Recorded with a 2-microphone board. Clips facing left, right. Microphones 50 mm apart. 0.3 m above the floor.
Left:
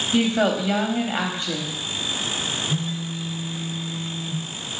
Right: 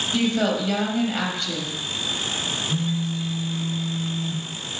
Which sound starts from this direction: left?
A woman speaking, at 0.1 s.